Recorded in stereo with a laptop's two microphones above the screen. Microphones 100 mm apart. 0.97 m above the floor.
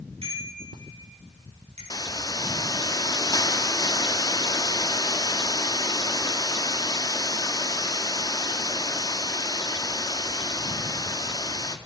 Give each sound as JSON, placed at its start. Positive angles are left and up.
{"t": 0.2, "sound": "a bicycle bell", "side_deg": -70, "distance_m": 6.0}
{"t": 1.9, "sound": "a hiss", "side_deg": 40, "distance_m": 0.7}